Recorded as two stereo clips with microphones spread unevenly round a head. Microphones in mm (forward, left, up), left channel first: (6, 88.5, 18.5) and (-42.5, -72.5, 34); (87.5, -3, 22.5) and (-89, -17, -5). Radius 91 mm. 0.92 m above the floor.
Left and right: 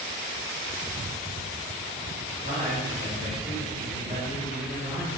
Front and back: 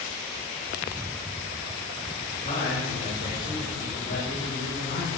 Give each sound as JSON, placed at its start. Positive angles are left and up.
{"t": 2.3, "sound": "a man speaking", "azimuth_deg": -50, "distance_m": 4.5}